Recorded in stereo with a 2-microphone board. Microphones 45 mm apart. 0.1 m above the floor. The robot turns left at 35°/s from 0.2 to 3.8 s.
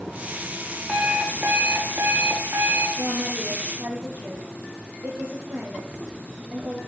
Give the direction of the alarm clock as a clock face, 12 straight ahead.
1 o'clock.